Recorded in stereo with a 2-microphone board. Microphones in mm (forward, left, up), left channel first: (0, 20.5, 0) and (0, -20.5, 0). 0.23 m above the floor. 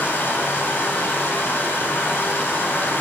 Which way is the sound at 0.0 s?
55° left (ahead or behind).